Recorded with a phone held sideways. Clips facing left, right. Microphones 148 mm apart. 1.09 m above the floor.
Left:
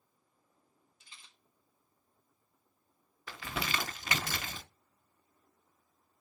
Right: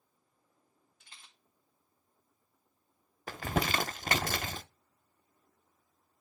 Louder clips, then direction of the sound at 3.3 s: Right 6 dB; 50° right (ahead or behind).